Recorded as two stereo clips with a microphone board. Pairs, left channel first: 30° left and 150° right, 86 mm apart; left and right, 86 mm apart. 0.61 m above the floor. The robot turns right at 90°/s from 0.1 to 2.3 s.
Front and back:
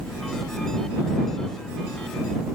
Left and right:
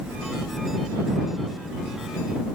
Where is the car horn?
I don't hear a car horn.